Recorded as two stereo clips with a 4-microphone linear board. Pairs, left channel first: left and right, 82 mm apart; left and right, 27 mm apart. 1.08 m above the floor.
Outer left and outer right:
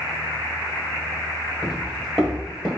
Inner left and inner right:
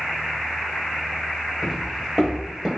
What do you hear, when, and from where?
1.6 s footsteps: 5° right (ahead or behind), 1.6 m